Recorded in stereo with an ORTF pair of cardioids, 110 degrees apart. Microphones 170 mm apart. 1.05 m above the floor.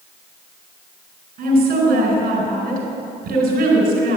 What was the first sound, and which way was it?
A woman speaking, 60° right.